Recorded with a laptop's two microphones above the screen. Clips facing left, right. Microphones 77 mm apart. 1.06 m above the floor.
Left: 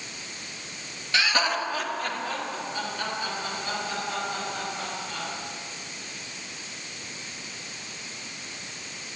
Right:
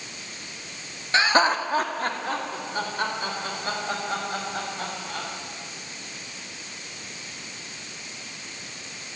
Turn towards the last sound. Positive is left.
turn(degrees=-40)  # may be behind; listen again after turning